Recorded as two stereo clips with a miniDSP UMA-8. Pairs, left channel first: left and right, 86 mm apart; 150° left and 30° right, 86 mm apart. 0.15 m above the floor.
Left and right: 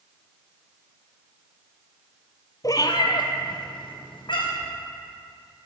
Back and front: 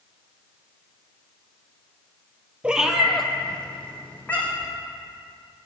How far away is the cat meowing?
About 0.6 m.